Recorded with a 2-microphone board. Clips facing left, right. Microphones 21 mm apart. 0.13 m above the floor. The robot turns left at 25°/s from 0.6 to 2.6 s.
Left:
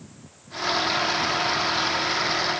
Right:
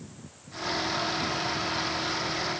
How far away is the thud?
I don't hear a thud.